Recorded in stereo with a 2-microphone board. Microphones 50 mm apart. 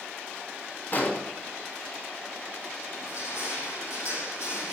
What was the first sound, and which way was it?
An explosion, 40° left (ahead or behind).